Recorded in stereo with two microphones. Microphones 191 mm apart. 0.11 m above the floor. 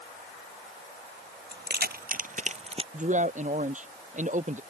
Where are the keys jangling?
60° right (ahead or behind); by 2.8 s 30° right (ahead or behind).